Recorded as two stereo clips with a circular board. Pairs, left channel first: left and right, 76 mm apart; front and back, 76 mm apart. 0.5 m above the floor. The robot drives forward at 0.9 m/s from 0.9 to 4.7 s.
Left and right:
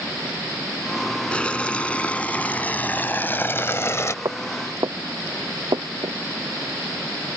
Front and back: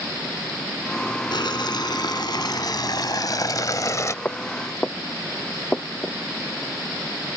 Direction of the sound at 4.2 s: 65° right.